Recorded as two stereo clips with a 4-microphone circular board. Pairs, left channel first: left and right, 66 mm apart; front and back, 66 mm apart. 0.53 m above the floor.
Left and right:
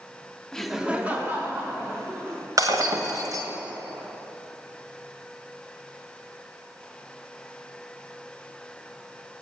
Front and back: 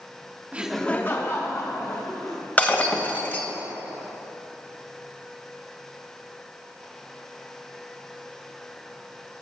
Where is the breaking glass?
65° right, 1.6 m.